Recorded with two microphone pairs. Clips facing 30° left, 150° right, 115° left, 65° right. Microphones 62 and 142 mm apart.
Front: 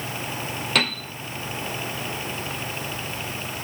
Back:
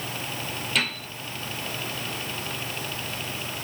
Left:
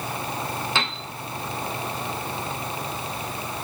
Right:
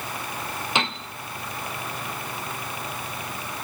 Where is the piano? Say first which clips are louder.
Front 4 dB, right 1 dB; 10° left, 0.8 m.